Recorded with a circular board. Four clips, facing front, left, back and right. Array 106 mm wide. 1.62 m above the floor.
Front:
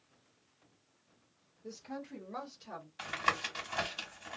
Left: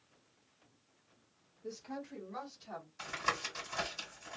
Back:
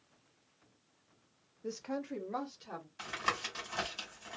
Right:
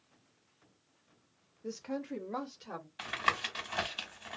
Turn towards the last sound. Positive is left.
turn(degrees=-75)